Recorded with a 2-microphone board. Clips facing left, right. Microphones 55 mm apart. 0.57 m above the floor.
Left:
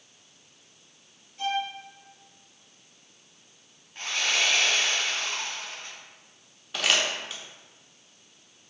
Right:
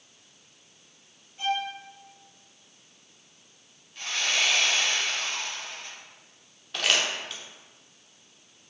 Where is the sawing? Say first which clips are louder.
Left 1 dB; 30° left (ahead or behind), 1.8 m.